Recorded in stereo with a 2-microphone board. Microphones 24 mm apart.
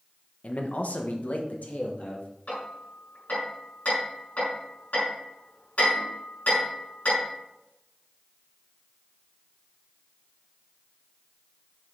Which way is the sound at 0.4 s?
60° left (ahead or behind).